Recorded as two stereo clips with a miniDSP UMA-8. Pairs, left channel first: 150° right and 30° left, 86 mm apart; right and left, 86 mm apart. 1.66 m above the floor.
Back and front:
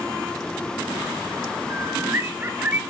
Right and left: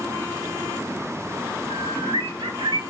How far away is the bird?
About 0.8 m.